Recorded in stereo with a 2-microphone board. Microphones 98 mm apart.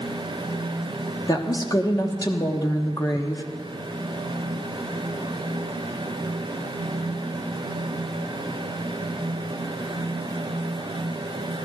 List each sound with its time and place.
1.3 s a woman speaking: 40° left (ahead or behind), 1.2 m